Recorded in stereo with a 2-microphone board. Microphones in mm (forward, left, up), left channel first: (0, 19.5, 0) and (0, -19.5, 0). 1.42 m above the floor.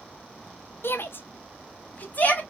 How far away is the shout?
About 0.6 m.